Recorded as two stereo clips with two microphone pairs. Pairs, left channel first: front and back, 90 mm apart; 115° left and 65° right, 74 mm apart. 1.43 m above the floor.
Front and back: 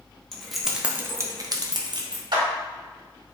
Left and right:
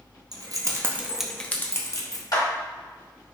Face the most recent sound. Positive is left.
turn(degrees=150)